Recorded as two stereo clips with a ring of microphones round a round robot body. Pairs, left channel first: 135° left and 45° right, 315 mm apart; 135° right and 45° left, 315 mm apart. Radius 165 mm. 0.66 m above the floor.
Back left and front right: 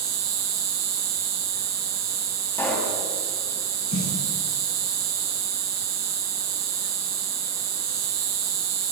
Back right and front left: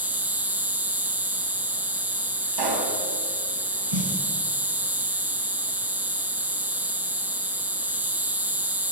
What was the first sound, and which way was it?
An insect, 40° right.